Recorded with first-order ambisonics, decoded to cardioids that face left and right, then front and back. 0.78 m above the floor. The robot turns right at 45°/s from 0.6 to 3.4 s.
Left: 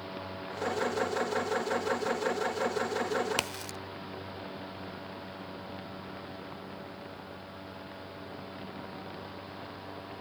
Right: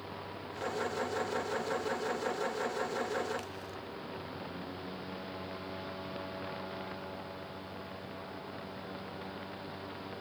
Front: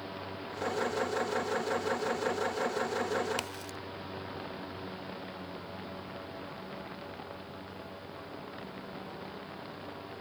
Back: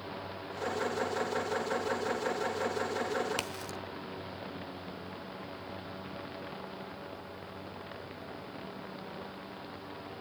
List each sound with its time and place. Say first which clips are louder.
3.4 s a crack: left 8 dB, back 1 dB; 95° left, 0.9 m